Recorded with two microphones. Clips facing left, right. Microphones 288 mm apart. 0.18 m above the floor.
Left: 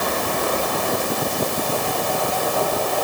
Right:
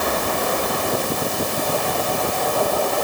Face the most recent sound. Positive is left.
No sound to turn to.